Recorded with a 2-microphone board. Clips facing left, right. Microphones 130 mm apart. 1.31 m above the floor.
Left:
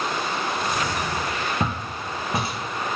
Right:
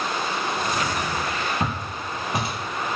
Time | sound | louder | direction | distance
1.6 | footsteps | even | 30° left (ahead or behind) | 1.4 m